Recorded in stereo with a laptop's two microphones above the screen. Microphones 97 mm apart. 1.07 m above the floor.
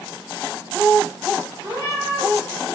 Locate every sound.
1.6 s a cat meowing: 65° right (ahead or behind), 1.7 m